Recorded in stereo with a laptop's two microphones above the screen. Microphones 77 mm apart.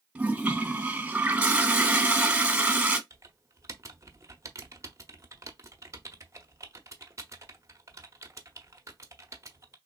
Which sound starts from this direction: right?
Typing on a keyboard, at 3.1 s.